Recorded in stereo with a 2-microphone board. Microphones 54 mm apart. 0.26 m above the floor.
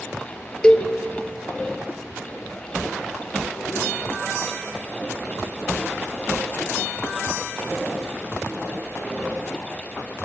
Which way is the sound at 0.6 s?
20° left (ahead or behind).